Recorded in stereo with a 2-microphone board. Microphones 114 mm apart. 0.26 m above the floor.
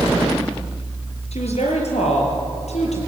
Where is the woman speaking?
75° left (ahead or behind), 5.5 m; by 3.0 s 80° left, 8 m.